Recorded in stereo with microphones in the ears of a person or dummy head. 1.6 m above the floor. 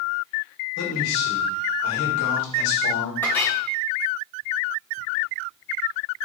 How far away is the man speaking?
About 1.6 m.